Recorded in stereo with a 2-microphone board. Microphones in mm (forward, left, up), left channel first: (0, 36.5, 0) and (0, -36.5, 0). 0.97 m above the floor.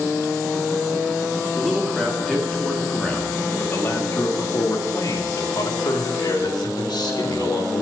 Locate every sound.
1.6 s a man speaking: 5° right (ahead or behind), 2.5 m; by 7.8 s 80° left, 3.5 m